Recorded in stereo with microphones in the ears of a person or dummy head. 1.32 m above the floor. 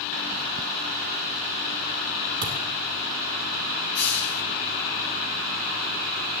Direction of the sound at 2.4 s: 25° right (ahead or behind).